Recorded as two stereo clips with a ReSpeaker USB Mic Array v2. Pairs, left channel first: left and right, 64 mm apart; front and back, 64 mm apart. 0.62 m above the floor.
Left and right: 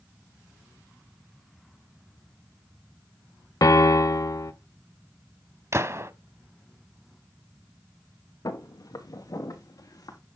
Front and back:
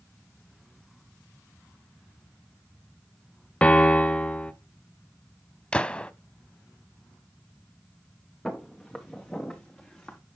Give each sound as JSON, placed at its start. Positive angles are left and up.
{"t": 3.6, "sound": "a piano", "azimuth_deg": 70, "distance_m": 1.0}
{"t": 5.7, "sound": "a gunshot", "azimuth_deg": -70, "distance_m": 0.6}
{"t": 8.4, "sound": "footsteps", "azimuth_deg": 80, "distance_m": 3.0}